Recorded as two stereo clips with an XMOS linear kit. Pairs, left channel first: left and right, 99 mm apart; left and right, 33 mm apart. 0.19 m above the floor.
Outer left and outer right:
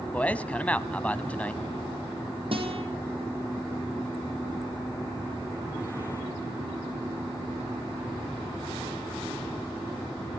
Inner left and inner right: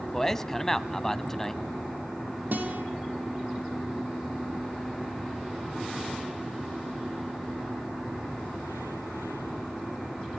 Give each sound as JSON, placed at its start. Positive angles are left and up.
{"t": 0.1, "sound": "a man speaking", "side_deg": 15, "distance_m": 1.0}
{"t": 2.5, "sound": "a guitar", "side_deg": -60, "distance_m": 4.0}